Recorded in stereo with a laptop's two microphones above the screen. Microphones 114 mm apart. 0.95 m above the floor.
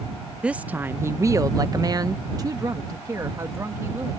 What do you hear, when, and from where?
0.4 s a woman speaking: 10° right (ahead or behind); by 4.2 s 25° right (ahead or behind)